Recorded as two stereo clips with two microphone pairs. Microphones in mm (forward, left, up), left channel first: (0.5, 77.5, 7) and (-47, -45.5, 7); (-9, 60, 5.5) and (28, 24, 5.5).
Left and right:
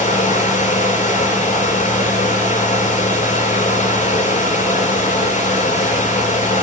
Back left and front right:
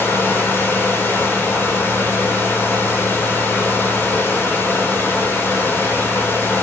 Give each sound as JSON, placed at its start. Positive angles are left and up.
{"t": 0.0, "sound": "running water", "azimuth_deg": 90, "distance_m": 9.0}